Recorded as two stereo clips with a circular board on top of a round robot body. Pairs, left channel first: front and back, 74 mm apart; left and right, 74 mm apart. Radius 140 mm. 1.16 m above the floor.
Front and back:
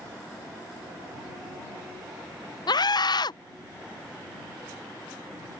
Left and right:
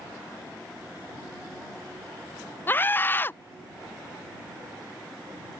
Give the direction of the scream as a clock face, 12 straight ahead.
11 o'clock.